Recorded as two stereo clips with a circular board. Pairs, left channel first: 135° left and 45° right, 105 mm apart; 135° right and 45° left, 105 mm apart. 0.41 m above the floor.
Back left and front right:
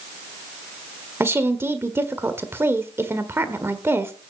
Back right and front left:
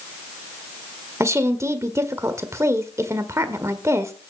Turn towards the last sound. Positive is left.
turn(degrees=5)